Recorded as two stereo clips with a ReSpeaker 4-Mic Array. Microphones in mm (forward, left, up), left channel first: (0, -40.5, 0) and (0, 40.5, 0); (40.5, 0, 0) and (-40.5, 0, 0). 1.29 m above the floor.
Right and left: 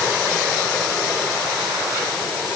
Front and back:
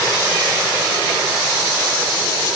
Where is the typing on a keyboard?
No typing on a keyboard in this recording.